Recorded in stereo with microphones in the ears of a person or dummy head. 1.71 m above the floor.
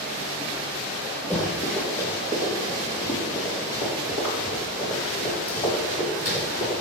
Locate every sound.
1.3 s running footsteps: 5° left (ahead or behind), 2 m; by 6.7 s 30° left (ahead or behind), 5 m